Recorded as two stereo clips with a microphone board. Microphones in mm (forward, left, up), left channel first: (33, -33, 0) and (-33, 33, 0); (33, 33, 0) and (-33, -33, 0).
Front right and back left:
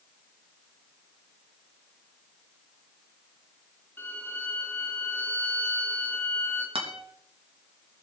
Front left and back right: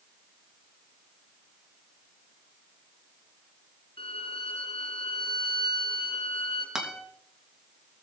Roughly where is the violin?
Ahead.